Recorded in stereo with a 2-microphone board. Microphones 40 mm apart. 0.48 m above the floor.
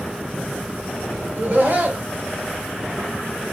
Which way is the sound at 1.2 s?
50° right (ahead or behind).